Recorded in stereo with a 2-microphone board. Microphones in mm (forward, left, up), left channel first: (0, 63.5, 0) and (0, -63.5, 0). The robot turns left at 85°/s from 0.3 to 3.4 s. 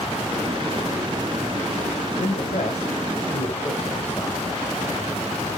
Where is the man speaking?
60° left (ahead or behind), 3 m; by 4.4 s 15° left (ahead or behind), 3 m.